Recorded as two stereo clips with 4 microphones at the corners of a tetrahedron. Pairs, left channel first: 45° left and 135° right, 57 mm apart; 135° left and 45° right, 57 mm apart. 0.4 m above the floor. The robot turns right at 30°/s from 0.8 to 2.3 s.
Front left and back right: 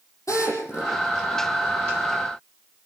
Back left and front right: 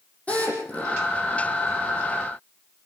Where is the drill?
70° left, 8.5 m; by 0.9 s 75° left, 8.5 m.